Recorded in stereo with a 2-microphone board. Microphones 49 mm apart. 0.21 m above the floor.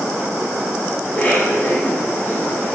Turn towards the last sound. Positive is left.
turn(degrees=35)  # may be behind; listen again after turning